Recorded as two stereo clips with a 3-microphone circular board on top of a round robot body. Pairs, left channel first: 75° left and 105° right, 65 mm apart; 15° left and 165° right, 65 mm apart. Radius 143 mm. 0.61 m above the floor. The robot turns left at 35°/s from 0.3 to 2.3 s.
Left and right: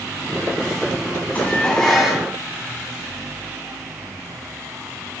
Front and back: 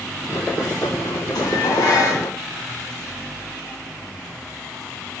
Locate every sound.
1.4 s dishes clattering: 5° left, 4 m; by 2.3 s 25° right, 4 m